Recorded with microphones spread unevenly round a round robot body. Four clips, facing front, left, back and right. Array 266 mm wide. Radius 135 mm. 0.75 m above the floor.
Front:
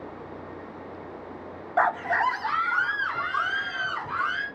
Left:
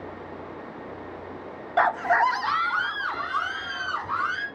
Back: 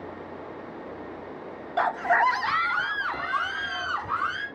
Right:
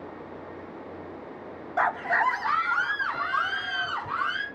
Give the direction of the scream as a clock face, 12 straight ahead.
10 o'clock.